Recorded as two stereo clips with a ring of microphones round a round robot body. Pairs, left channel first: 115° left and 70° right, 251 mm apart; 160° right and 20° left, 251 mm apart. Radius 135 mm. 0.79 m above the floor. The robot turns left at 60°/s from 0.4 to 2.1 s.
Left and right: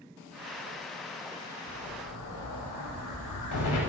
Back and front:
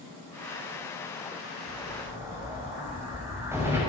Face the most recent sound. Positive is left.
turn(degrees=105)